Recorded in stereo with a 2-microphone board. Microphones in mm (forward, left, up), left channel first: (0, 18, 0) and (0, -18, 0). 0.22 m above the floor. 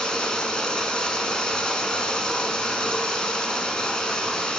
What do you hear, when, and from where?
0.0 s running water: 20° left (ahead or behind), 0.7 m